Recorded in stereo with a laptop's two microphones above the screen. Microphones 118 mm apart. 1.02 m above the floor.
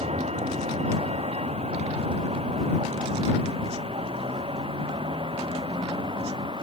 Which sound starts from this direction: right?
A vehicle, at 0.0 s.